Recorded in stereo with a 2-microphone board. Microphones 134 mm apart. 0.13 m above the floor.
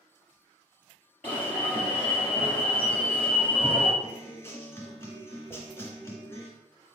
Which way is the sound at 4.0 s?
20° left (ahead or behind).